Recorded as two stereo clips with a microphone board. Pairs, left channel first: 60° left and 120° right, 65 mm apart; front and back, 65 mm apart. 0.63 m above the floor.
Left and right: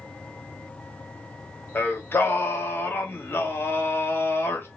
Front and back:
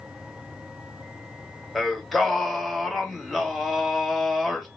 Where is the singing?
90° left, 1.0 m.